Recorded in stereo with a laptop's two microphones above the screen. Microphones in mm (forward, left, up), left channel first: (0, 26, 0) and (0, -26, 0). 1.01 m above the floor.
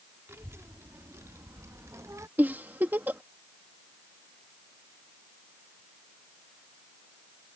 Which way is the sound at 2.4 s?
40° right (ahead or behind).